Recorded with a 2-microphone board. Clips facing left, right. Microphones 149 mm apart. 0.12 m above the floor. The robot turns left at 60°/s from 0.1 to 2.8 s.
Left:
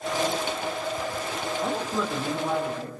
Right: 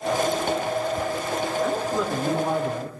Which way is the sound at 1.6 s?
15° left.